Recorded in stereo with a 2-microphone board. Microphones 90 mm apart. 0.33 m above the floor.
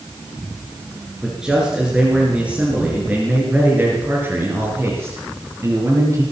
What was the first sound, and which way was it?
A man speaking, 5° right (ahead or behind).